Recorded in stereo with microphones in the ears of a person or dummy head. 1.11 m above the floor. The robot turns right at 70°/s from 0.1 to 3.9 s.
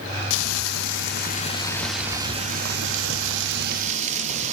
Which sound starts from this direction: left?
Frying, at 0.3 s.